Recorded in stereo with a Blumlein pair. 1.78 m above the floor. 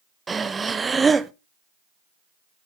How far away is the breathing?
About 0.7 m.